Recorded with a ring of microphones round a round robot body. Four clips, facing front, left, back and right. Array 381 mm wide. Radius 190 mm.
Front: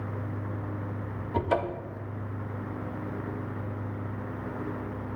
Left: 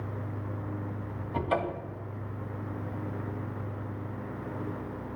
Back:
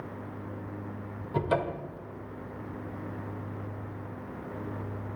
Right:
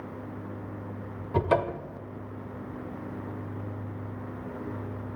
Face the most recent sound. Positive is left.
turn(degrees=-85)